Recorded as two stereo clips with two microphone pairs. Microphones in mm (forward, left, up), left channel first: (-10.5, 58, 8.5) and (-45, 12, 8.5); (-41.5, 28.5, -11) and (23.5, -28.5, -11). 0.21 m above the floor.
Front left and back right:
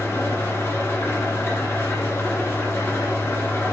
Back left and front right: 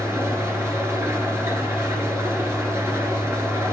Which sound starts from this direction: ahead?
An engine running, at 0.0 s.